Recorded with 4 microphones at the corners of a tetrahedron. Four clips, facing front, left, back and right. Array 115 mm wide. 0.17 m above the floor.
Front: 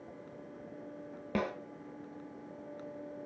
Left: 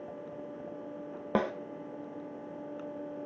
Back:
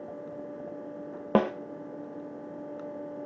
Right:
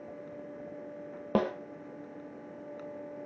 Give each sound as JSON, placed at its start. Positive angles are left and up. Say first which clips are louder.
{"t": 1.4, "sound": "a snare drum", "louder": "right 1 dB, back 10 dB", "azimuth_deg": -175, "distance_m": 1.5}